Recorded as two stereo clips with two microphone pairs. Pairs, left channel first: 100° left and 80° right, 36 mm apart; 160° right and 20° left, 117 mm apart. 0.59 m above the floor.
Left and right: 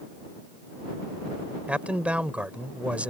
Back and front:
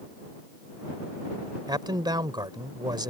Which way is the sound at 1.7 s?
30° right.